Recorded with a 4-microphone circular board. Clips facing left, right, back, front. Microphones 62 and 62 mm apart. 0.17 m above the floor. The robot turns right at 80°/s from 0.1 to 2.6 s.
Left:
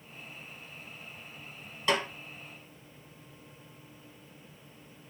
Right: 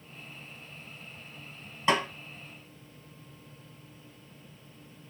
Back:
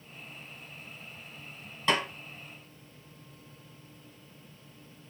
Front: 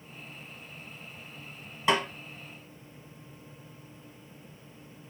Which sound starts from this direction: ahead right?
A snare drum, at 1.9 s.